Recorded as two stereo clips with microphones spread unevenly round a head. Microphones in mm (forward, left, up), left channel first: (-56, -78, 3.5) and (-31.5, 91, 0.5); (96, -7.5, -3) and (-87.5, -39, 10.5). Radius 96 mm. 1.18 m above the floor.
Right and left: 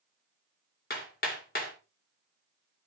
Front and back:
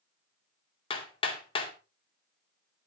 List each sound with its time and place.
0.9 s hammering: 50° right, 3 m